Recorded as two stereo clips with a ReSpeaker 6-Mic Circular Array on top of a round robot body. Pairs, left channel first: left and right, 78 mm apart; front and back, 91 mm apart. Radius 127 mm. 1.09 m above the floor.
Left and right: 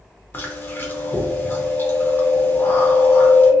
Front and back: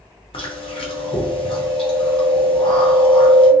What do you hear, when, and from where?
0.3 s chewing: 25° left, 0.7 m